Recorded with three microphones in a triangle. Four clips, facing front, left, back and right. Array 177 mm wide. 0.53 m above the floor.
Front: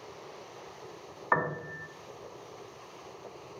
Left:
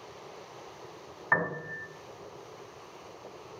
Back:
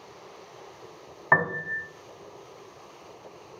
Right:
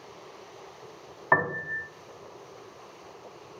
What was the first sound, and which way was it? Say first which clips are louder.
A piano: right 5 dB, back 5 dB; 140° right.